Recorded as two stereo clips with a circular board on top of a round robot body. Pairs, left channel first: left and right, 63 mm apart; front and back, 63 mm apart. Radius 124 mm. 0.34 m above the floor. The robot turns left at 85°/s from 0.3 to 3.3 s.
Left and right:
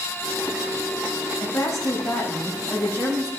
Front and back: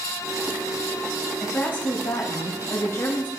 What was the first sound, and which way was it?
A woman speaking, 85° left.